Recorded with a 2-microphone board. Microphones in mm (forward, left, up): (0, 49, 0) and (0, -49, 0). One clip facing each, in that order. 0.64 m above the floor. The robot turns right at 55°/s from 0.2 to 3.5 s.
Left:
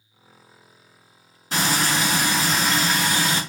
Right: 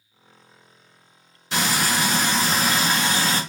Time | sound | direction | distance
1.5 | frying | 130° left | 1.8 m